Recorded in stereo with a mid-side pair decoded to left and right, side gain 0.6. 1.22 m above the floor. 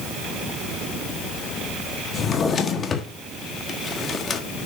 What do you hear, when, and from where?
2.1 s a drawer: 40° left, 1.4 m